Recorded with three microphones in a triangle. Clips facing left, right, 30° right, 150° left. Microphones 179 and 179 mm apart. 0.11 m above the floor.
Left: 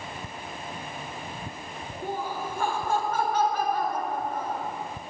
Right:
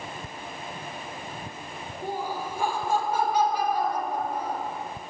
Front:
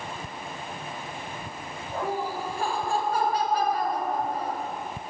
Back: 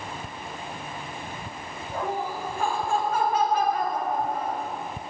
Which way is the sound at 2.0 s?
20° right.